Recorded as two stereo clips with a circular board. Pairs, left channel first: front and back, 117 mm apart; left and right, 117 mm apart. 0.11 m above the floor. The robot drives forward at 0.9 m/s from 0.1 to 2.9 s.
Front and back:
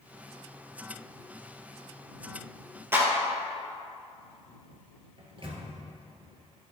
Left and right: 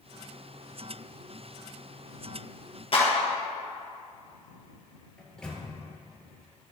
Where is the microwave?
170° left, 1.6 m.